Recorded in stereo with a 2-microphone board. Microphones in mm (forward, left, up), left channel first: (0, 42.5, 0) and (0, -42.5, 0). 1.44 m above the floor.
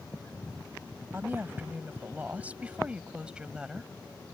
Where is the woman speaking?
25° right (ahead or behind); by 3.9 s 5° right (ahead or behind).